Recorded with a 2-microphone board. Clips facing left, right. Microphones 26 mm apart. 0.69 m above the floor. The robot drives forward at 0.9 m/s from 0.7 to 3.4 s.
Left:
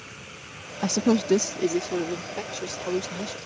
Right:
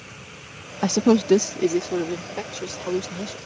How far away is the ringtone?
I don't hear a ringtone.